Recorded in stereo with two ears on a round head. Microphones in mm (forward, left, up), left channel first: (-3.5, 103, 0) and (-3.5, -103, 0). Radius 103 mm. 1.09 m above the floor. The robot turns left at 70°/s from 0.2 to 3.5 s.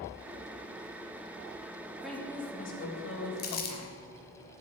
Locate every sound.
2.0 s a woman speaking: 175° right, 1.7 m; by 4.0 s 80° left, 1.7 m
3.4 s crumpling: 45° left (ahead or behind), 1.3 m; by 3.8 s 40° left (ahead or behind), 1.3 m